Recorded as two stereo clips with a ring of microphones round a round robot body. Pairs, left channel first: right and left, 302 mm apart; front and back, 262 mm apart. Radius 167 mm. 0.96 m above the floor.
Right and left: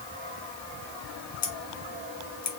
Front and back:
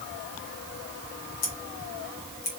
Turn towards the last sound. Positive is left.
turn(degrees=-45)